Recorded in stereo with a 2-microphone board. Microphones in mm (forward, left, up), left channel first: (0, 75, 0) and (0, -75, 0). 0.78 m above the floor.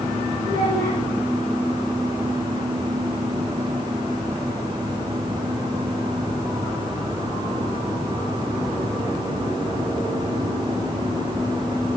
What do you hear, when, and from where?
0.4 s a child speaking: 80° right, 8.5 m